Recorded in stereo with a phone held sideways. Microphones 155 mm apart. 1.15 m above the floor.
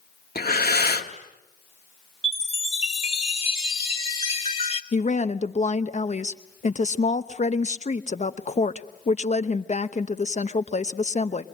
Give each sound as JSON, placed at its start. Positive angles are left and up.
{"t": 0.3, "sound": "breathing", "side_deg": 80, "distance_m": 1.6}
{"t": 2.2, "sound": "a chime", "side_deg": 40, "distance_m": 1.9}
{"t": 4.9, "sound": "a woman speaking", "side_deg": 50, "distance_m": 0.9}